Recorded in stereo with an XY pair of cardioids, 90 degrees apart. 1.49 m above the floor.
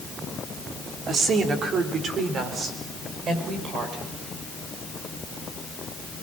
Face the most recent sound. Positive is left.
turn(degrees=-65)